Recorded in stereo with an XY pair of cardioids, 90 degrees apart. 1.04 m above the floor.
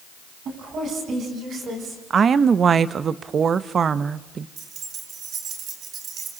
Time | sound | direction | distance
0.5 | a woman speaking | 65° right | 9 m
2.1 | a woman speaking | 55° right | 0.9 m
4.6 | keys jangling | 70° right | 3 m